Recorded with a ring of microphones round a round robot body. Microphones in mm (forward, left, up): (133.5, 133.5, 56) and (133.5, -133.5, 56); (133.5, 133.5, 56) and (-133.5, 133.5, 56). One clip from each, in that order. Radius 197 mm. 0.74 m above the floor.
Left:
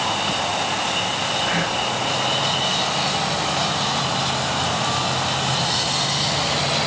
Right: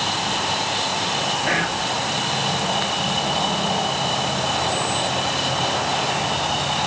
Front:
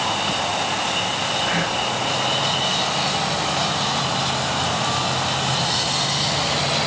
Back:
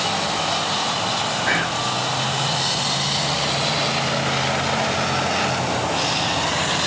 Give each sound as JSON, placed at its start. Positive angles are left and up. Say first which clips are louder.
{"t": 1.5, "sound": "whispering", "louder": "even, back 1 dB", "azimuth_deg": -160, "distance_m": 2.5}